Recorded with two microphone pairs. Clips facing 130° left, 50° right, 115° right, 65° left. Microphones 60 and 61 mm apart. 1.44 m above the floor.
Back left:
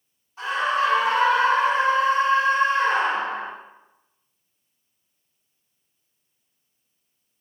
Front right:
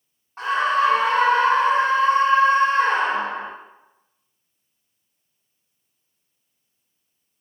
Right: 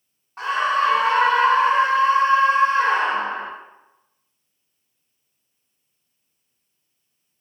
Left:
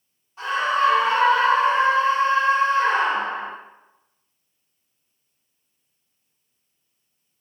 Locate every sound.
0.4 s a scream: 90° right, 0.7 m